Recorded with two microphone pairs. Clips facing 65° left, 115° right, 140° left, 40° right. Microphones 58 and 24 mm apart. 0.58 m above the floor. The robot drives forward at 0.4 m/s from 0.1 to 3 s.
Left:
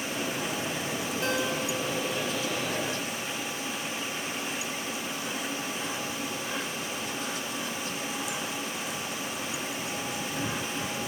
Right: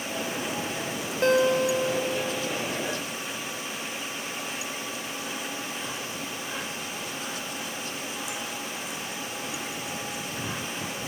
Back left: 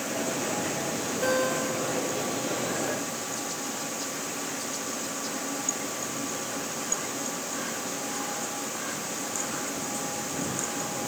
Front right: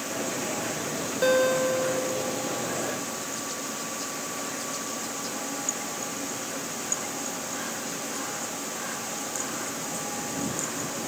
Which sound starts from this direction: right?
A guitar, at 1.2 s.